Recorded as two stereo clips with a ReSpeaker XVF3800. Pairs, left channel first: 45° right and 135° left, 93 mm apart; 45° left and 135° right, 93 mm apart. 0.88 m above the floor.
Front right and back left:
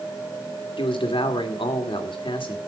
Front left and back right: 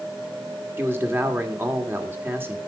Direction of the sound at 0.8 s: 70° right.